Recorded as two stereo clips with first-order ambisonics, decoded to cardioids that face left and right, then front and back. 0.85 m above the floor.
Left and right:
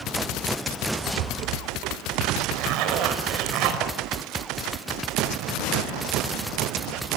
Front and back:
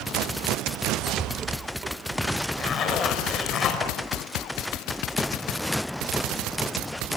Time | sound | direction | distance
1.2 | a rattle | 115° right | 1.1 m
2.6 | a zipper | 60° right | 4.5 m